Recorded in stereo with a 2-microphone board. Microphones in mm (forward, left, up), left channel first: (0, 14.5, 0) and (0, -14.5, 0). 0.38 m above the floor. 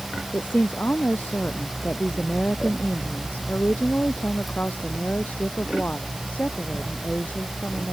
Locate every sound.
0.3 s a woman speaking: 85° left; by 7.9 s 65° left (ahead or behind)